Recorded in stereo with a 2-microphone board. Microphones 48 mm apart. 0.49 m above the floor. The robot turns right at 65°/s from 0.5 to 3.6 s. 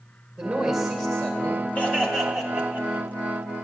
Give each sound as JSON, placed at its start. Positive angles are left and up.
{"t": 0.4, "sound": "a man speaking", "azimuth_deg": -25, "distance_m": 2.5}
{"t": 1.8, "sound": "laughter", "azimuth_deg": 145, "distance_m": 2.5}